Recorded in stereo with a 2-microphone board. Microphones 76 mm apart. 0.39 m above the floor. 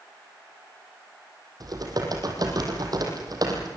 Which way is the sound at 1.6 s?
55° right (ahead or behind).